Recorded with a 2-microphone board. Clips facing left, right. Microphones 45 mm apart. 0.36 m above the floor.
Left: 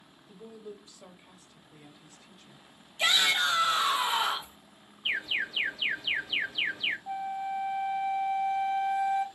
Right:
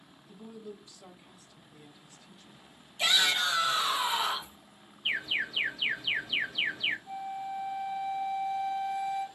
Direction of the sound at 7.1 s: 50° left (ahead or behind).